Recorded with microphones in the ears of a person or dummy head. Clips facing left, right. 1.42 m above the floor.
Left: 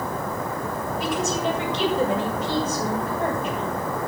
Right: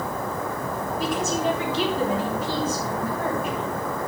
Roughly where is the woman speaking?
Centre.